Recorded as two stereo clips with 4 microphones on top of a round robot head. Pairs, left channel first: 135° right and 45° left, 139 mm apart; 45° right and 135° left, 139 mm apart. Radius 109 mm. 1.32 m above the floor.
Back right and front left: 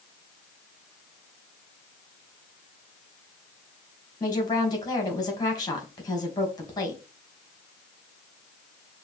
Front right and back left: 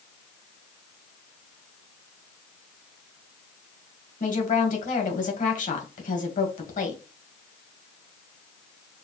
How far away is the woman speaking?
About 1.9 m.